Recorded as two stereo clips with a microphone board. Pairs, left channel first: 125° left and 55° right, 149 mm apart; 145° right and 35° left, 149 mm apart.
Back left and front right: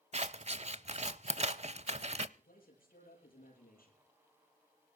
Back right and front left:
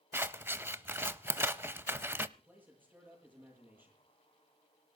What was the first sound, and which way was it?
Scissors, 35° right.